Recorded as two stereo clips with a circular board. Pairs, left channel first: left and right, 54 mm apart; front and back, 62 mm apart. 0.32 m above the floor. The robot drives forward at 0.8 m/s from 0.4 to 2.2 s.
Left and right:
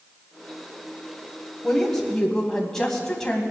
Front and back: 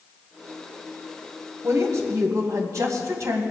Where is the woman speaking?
170° left, 1.9 m.